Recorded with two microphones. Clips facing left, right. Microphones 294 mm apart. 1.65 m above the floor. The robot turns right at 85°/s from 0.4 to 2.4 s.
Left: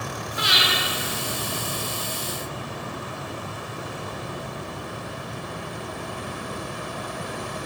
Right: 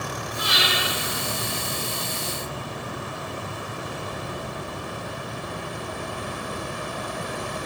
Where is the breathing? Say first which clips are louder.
Even; 80° left, 0.9 m; by 0.7 s 70° left (ahead or behind), 0.9 m.